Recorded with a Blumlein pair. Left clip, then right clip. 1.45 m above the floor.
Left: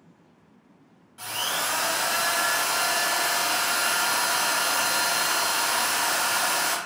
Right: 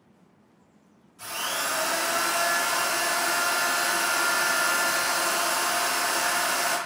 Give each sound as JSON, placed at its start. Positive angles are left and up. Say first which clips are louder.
{"t": 1.2, "sound": "a drill", "louder": "left 2 dB", "azimuth_deg": 45, "distance_m": 1.3}